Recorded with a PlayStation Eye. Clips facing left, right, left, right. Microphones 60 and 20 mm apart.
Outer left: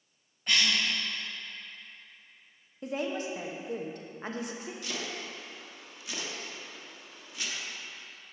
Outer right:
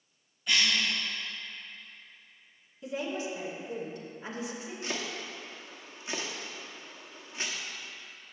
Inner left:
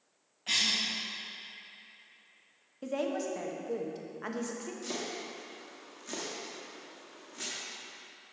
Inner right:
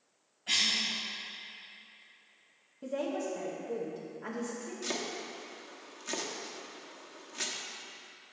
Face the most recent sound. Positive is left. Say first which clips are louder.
# outer right 3 dB, inner right 3 dB
turn(degrees=-35)  # may be behind; listen again after turning